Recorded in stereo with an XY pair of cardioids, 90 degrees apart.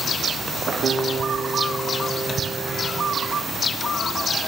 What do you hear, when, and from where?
0.8 s a guitar: 60° right, 3 m